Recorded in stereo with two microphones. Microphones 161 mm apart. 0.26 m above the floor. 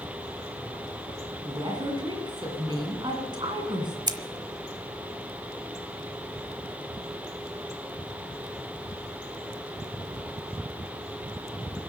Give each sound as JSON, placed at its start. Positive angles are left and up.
{"t": 1.4, "sound": "a woman speaking", "side_deg": -30, "distance_m": 2.5}
{"t": 4.1, "sound": "scissors", "side_deg": -30, "distance_m": 1.1}